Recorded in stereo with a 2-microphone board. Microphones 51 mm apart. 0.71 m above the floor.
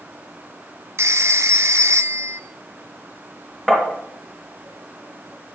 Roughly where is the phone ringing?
Right.